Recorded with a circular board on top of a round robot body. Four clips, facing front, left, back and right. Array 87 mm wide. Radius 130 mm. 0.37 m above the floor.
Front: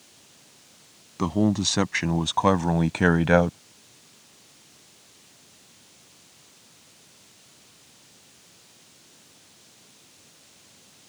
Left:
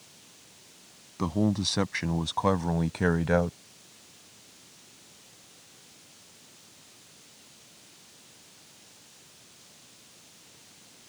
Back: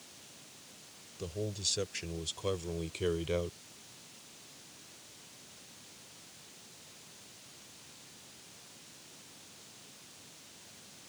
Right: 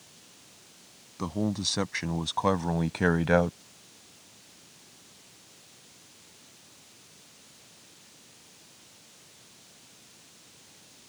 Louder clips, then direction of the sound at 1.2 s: Left 3 dB, front 16 dB; 10° left.